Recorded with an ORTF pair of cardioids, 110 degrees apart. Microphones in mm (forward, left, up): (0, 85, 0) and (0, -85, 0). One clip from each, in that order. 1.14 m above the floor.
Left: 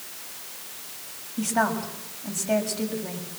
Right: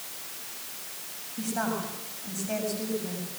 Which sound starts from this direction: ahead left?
A woman speaking, at 1.4 s.